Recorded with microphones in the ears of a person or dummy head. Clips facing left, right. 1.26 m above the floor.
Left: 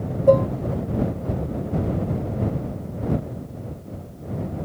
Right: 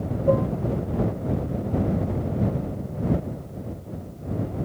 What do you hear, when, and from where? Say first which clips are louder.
0.3 s dishes clattering: left 6 dB; 45° left (ahead or behind)